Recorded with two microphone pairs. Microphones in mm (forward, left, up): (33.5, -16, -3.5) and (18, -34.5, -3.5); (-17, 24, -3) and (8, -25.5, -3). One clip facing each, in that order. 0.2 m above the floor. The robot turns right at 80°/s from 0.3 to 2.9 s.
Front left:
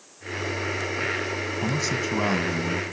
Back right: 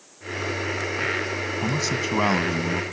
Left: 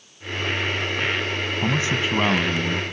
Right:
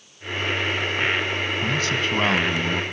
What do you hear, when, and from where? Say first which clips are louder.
1.6 s a man speaking: back right 1 dB, left 3 dB; 155° left, 1.6 m; by 2.8 s 110° right, 1.6 m